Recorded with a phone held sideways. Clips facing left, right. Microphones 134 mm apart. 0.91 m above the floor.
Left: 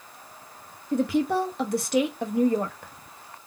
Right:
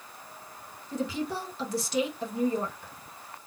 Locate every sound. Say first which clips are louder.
0.9 s a woman speaking: left 8 dB; 60° left (ahead or behind), 0.7 m